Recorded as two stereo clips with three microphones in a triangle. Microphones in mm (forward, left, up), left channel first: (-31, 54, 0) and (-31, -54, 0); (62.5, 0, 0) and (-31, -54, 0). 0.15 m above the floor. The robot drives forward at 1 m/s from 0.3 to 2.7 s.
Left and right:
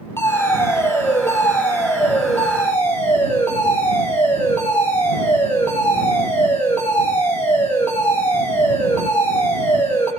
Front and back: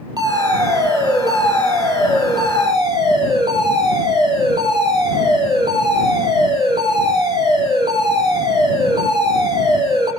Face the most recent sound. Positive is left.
turn(degrees=165)